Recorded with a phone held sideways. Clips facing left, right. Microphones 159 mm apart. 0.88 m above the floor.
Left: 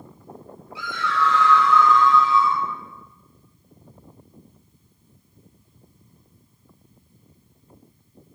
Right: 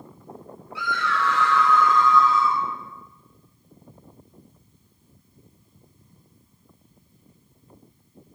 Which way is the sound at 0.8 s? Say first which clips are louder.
Left 1 dB; 60° right (ahead or behind).